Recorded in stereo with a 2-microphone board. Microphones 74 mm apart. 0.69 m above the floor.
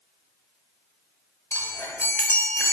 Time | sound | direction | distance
1.5 | a chime | 30° left (ahead or behind) | 0.7 m